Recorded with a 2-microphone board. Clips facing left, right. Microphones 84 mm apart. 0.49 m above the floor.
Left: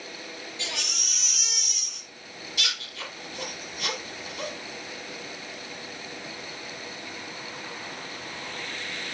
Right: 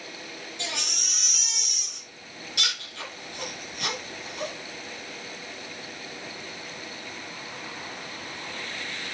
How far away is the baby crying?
About 3.5 m.